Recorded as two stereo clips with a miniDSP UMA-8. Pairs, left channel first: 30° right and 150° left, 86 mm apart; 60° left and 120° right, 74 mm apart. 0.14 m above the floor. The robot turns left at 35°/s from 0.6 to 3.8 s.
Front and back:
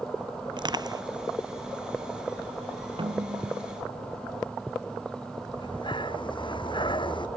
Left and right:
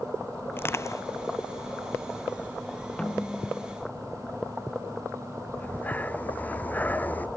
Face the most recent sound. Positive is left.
turn(degrees=-10)